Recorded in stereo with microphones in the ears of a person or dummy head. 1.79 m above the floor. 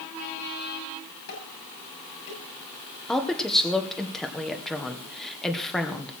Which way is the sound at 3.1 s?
Centre (ahead or behind).